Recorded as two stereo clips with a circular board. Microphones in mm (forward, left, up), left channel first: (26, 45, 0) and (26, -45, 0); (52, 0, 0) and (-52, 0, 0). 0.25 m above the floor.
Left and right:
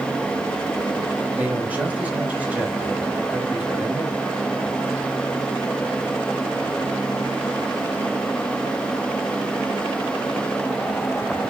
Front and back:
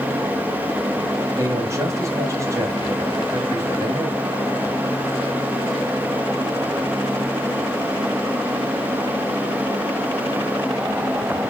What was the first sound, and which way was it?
A man speaking, 150° right.